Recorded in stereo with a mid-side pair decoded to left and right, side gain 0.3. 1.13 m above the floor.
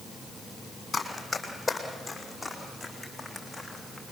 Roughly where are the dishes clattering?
I don't hear dishes clattering.